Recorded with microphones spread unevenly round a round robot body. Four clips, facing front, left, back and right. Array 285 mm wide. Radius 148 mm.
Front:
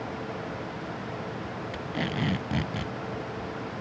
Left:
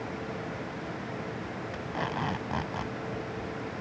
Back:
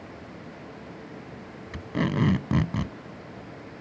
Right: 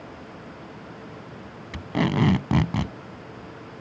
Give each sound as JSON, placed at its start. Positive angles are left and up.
{"t": 1.7, "sound": "tape being pulled", "azimuth_deg": -115}